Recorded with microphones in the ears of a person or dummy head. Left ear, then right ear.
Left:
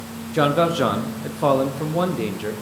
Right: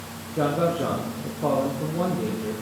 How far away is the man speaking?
About 0.7 m.